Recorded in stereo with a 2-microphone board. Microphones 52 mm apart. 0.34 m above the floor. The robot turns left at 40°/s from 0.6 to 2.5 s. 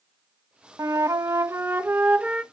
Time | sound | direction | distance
0.8 | a flute | 95° right | 0.6 m